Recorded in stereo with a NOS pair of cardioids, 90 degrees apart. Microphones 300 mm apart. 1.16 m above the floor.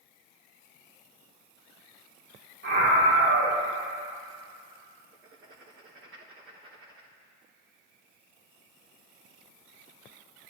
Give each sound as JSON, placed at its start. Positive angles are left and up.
{"t": 2.6, "sound": "a scream", "azimuth_deg": -55, "distance_m": 5.5}
{"t": 5.1, "sound": "writing", "azimuth_deg": -40, "distance_m": 3.0}